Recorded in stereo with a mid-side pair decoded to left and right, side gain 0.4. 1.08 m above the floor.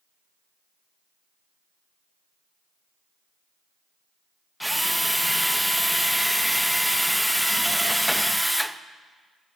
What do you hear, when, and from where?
4.6 s a drill: 5° right, 0.5 m